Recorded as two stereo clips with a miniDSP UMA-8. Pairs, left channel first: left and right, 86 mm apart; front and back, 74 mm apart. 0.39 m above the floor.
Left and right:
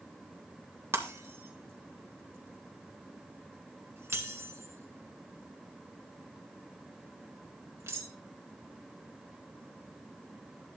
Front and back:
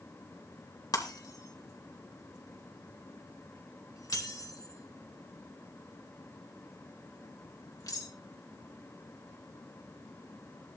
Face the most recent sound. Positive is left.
turn(degrees=-30)